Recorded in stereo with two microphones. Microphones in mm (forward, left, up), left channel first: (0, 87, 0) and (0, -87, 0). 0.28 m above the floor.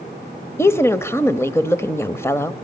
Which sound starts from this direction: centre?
A woman speaking, at 0.6 s.